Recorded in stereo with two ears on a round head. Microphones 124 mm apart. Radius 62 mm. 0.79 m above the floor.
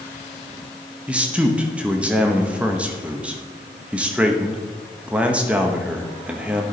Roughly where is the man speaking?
Centre.